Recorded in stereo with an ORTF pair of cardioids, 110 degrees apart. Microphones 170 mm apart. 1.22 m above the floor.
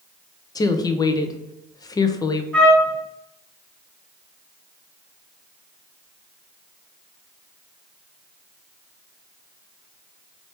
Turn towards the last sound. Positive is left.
turn(degrees=5)